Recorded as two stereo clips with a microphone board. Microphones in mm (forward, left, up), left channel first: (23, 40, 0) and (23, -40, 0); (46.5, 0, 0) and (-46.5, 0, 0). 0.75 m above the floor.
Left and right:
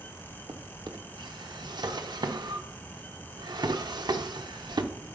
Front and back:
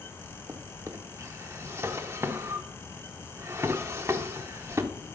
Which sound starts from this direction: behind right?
A drawer, at 0.5 s.